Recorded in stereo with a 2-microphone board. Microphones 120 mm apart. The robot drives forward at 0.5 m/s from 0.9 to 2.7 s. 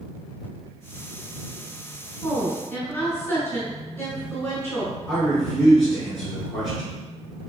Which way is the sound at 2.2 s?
20° left (ahead or behind).